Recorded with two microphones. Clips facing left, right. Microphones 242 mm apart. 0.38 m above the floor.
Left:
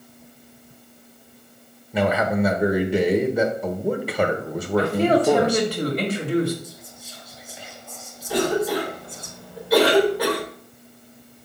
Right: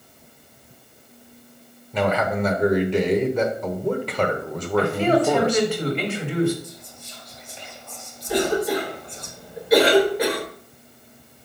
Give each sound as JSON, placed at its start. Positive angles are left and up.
{"t": 1.9, "sound": "a man speaking", "side_deg": 10, "distance_m": 0.9}
{"t": 4.8, "sound": "a man speaking", "side_deg": 40, "distance_m": 1.9}
{"t": 6.6, "sound": "whispering", "side_deg": 5, "distance_m": 1.4}
{"t": 8.3, "sound": "a cough", "side_deg": -20, "distance_m": 1.1}